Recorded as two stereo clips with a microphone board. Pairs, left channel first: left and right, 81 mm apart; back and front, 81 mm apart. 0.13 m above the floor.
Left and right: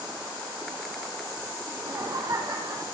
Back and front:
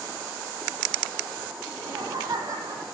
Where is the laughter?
50° right, 6 m; by 2.8 s 45° right, 5 m.